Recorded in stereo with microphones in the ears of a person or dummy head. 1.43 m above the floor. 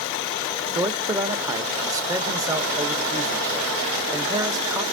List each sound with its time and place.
0.8 s a man speaking: 20° right (ahead or behind), 0.8 m